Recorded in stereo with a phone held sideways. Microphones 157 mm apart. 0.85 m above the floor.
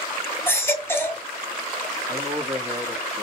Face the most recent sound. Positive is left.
turn(degrees=-25)  # may be behind; listen again after turning